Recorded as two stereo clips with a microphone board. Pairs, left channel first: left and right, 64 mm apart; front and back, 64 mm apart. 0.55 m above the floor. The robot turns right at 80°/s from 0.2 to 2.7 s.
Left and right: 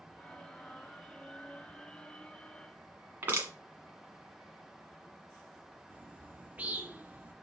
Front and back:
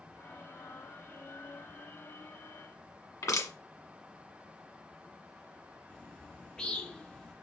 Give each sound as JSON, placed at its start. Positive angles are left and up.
{"t": 3.2, "sound": "crushing", "azimuth_deg": -30, "distance_m": 1.5}
{"t": 5.9, "sound": "a bird", "azimuth_deg": -60, "distance_m": 0.6}